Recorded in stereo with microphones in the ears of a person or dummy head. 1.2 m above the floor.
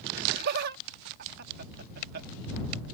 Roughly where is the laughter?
Right.